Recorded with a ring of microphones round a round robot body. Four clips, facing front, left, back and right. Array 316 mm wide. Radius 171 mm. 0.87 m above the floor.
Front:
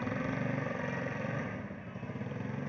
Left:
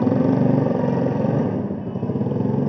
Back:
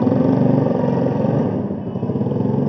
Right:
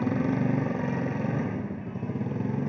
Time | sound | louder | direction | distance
0.0 | a motorcycle | left 9 dB, back 20 dB | 150° left | ?